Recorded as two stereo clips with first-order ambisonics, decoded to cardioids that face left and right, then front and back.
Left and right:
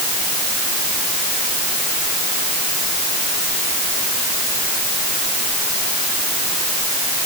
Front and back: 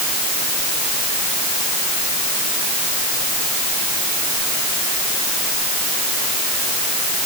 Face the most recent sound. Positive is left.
No sound to turn to.